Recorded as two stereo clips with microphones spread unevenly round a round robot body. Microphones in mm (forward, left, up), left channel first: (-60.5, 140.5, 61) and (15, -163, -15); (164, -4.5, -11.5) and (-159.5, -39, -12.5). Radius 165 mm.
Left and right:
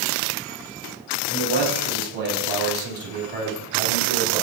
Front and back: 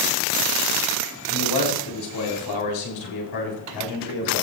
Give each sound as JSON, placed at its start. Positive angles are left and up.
{"t": 1.3, "sound": "a man speaking", "azimuth_deg": -30, "distance_m": 5.5}